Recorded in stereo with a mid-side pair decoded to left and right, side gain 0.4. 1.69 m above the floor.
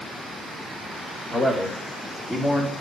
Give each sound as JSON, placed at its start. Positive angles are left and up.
{"t": 1.3, "sound": "a man speaking", "azimuth_deg": -35, "distance_m": 3.5}